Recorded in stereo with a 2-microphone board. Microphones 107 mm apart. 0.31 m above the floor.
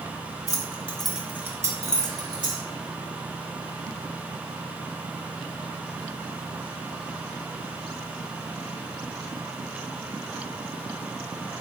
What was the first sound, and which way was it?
Keys jangling, 35° left (ahead or behind).